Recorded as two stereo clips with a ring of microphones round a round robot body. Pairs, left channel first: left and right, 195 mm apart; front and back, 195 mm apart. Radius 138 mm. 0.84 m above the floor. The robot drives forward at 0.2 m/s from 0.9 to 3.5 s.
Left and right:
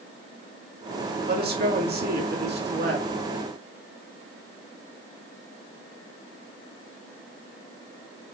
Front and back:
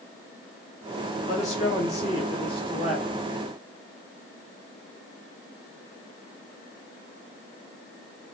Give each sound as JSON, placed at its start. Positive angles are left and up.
{"t": 1.3, "sound": "a man speaking", "azimuth_deg": -60, "distance_m": 2.0}